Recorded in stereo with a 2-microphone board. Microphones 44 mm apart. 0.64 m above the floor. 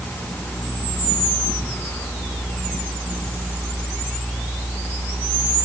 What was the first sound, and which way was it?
Only background noise.